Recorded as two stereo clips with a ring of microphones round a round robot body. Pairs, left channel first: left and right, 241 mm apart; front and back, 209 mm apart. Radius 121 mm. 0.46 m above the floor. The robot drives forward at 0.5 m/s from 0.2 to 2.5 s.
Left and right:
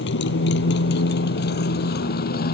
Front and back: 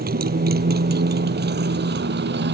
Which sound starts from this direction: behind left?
A motorcycle, at 0.0 s.